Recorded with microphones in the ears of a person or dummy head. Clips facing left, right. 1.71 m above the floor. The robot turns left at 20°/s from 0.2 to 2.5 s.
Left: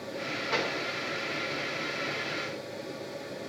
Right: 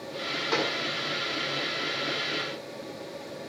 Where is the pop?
60° right (ahead or behind), 5 m; by 0.8 s 55° right (ahead or behind), 5 m.